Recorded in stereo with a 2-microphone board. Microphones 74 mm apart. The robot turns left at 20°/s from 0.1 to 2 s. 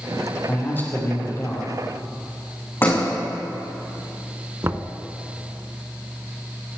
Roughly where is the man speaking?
Left.